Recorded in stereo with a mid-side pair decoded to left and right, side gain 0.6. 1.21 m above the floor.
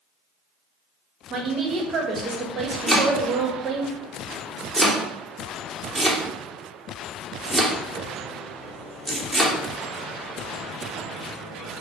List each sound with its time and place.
1.3 s a woman speaking: 40° right, 0.7 m
2.9 s chopping: 5° right, 0.8 m